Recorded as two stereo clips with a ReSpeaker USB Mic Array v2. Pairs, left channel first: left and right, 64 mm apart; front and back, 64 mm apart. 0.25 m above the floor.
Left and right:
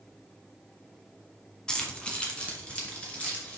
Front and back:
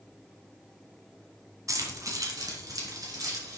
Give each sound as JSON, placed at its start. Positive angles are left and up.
{"t": 1.7, "sound": "keys jangling", "azimuth_deg": 165, "distance_m": 1.4}